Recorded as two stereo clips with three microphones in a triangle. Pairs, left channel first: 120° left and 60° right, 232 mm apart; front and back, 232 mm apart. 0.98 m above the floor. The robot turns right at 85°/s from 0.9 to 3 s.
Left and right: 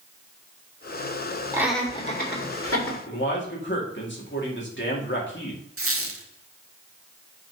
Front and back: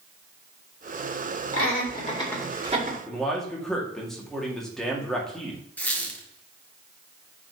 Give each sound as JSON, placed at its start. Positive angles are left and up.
{"t": 1.5, "sound": "laughter", "azimuth_deg": 15, "distance_m": 2.5}
{"t": 3.1, "sound": "a man speaking", "azimuth_deg": 90, "distance_m": 2.5}
{"t": 5.8, "sound": "a squeak", "azimuth_deg": -85, "distance_m": 1.4}